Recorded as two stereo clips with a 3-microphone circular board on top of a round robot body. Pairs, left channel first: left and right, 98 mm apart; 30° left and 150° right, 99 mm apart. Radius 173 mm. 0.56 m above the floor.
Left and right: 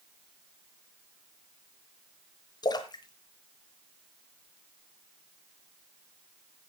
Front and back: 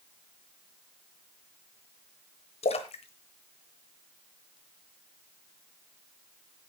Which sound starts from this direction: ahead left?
A splash, at 2.6 s.